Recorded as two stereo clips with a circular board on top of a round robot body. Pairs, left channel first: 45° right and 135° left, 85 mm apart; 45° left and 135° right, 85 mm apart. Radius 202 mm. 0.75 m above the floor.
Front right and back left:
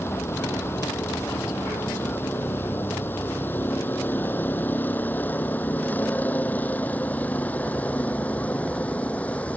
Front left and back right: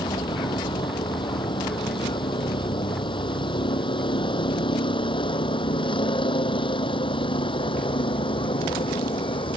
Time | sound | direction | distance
0.0 | a vehicle | 20° left | ?